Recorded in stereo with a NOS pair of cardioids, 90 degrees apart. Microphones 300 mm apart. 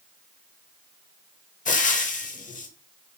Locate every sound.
1.6 s frying: 25° left, 0.8 m